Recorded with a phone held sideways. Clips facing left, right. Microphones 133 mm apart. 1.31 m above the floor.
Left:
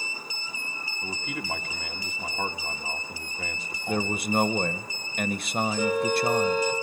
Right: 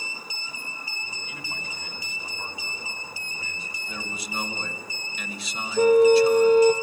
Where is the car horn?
50° right (ahead or behind), 2 m.